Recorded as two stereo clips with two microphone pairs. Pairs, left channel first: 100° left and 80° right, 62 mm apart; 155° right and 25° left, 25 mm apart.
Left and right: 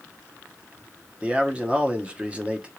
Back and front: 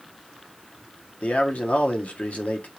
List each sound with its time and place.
1.2 s a man speaking: 150° right, 1.0 m